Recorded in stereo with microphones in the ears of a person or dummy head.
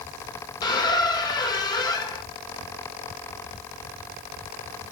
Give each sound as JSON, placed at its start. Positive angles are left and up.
{"t": 0.6, "sound": "a squeak", "side_deg": 25, "distance_m": 1.6}